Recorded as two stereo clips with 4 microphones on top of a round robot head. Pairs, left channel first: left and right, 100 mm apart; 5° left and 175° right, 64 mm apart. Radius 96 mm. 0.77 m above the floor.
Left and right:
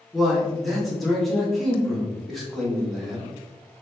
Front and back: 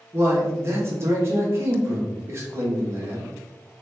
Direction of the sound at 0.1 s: Straight behind.